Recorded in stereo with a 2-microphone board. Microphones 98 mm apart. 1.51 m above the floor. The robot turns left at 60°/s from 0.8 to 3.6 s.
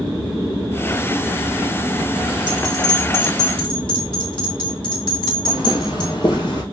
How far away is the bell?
About 2.5 m.